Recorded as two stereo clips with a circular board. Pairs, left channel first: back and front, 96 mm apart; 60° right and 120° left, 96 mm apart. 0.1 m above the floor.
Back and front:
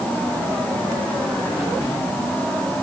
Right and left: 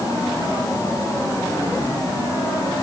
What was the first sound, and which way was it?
Only background noise.